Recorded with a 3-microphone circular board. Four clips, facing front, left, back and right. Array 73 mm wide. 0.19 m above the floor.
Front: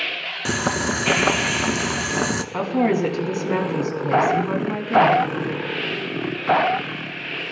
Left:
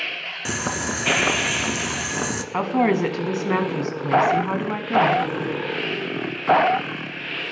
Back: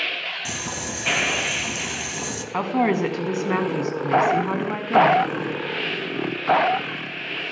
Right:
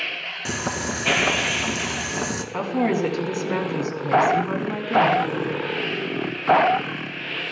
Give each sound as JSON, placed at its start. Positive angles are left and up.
{"t": 0.5, "sound": "boiling", "azimuth_deg": 10, "distance_m": 1.1}
{"t": 2.5, "sound": "a woman speaking", "azimuth_deg": 120, "distance_m": 1.4}